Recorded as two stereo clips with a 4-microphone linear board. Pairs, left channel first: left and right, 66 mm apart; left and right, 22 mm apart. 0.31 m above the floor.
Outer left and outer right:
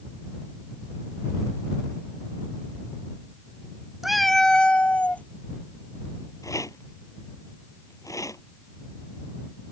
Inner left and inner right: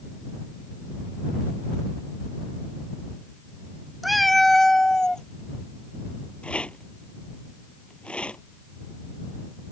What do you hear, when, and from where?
4.0 s a cat meowing: 5° right (ahead or behind); by 5.2 s 25° left (ahead or behind)
6.4 s a rattle: 55° left (ahead or behind)